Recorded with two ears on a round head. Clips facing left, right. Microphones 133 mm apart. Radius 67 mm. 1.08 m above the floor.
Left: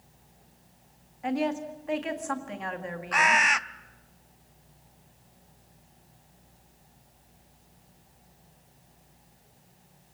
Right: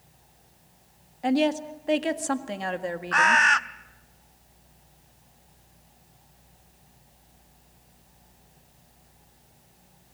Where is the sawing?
I don't hear sawing.